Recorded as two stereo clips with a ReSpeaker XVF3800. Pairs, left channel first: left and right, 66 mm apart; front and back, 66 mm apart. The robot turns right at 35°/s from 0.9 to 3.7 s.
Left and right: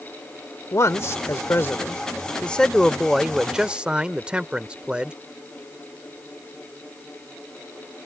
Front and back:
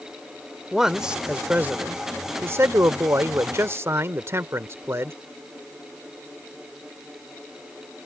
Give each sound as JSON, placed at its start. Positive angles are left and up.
{"t": 0.7, "sound": "a man speaking", "azimuth_deg": 100}